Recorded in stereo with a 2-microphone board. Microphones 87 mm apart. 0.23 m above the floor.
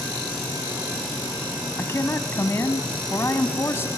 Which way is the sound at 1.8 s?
30° left (ahead or behind).